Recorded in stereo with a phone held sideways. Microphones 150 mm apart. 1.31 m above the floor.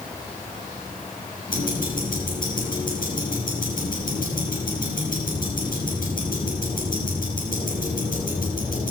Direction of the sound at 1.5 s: 70° left (ahead or behind).